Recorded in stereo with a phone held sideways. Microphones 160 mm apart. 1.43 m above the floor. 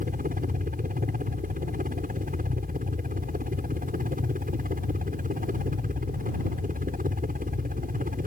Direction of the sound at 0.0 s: 60° right (ahead or behind).